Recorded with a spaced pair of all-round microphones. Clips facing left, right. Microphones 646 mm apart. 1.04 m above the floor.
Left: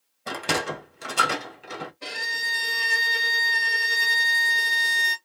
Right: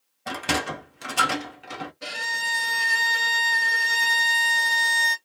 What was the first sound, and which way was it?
A sliding door, 20° right (ahead or behind).